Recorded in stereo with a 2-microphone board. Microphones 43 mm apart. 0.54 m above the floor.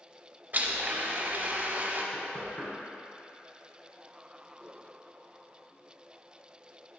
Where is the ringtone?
No ringtone in this recording.